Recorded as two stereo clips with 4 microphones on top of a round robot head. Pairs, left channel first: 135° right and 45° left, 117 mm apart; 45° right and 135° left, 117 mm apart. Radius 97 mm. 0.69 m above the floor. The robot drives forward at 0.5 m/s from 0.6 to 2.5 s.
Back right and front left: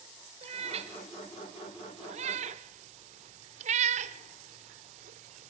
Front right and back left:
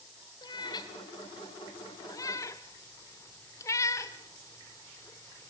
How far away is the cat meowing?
About 1.8 m.